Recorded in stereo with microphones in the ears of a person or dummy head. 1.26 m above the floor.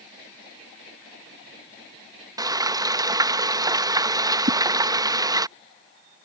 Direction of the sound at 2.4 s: 15° right (ahead or behind).